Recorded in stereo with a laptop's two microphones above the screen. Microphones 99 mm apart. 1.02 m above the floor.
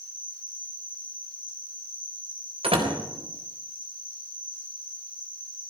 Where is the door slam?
90° right, 4 m.